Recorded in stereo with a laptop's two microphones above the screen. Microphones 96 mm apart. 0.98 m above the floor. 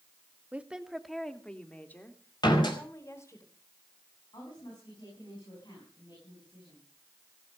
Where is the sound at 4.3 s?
50° left (ahead or behind), 6.5 m.